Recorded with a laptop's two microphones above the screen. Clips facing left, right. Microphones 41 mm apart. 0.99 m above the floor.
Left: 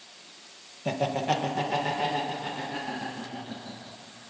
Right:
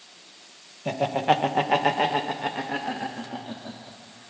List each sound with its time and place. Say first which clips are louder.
0.8 s laughter: right 4 dB; 5° right (ahead or behind), 0.6 m; by 4.0 s 60° right (ahead or behind), 2 m